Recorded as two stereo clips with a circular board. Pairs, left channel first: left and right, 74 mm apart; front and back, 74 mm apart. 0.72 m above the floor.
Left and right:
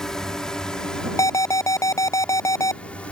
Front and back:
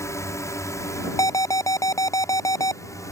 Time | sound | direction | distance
0.0 | a drone | 10° left | ?
1.2 | an alarm | 45° left | ?